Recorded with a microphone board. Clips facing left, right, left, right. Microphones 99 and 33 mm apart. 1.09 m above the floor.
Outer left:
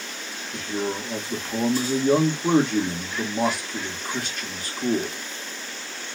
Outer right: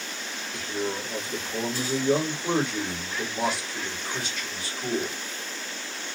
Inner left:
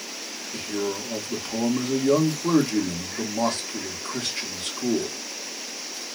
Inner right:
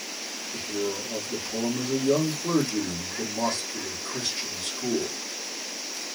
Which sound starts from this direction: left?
A man speaking, at 0.5 s.